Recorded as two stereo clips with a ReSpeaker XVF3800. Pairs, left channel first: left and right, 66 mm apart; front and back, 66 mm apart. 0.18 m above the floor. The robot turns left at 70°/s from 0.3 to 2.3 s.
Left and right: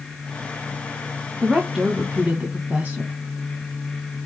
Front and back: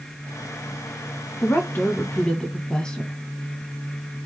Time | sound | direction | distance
1.4 | a woman speaking | straight ahead | 1.1 m